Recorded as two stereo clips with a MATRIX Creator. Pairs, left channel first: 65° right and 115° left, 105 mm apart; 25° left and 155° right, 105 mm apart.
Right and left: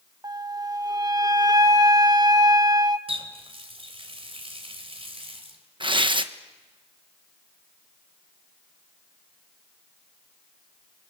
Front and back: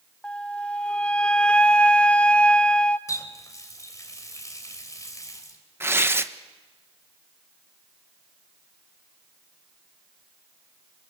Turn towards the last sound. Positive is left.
turn(degrees=140)